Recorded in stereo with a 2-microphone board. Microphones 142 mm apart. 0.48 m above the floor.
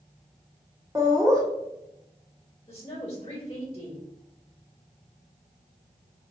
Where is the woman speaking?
25° left (ahead or behind), 1.6 m.